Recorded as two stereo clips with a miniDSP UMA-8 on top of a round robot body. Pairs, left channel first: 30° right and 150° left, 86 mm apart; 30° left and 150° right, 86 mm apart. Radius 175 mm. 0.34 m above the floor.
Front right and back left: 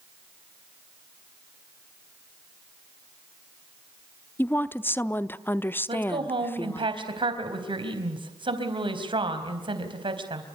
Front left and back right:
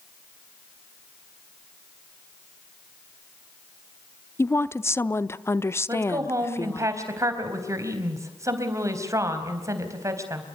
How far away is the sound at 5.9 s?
About 4 m.